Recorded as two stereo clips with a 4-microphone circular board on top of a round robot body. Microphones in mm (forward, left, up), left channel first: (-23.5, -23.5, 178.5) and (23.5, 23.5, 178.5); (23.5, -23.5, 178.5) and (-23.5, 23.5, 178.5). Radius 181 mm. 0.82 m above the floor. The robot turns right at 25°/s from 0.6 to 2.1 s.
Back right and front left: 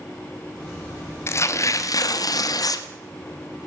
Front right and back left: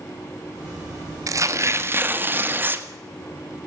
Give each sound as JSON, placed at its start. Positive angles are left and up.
{"t": 1.3, "sound": "tearing paper", "azimuth_deg": 175, "distance_m": 1.3}